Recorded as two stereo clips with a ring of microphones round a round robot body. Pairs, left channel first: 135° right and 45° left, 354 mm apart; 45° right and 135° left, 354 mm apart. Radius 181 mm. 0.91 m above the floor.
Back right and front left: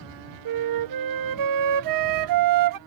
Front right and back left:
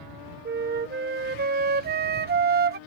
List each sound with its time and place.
0.5 s a flute: 75° left